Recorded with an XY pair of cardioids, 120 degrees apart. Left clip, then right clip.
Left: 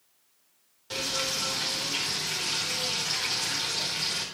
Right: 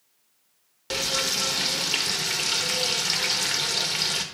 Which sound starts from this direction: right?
Frying, at 0.9 s.